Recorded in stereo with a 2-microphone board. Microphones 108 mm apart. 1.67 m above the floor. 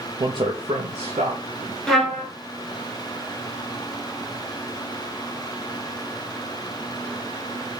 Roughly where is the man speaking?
Right.